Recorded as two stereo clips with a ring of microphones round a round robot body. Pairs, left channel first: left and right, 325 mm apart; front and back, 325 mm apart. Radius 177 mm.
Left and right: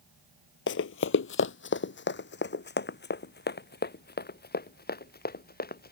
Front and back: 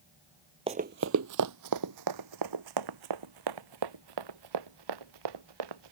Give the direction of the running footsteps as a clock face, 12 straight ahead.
8 o'clock.